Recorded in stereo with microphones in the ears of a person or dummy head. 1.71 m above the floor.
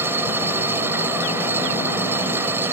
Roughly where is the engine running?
Centre.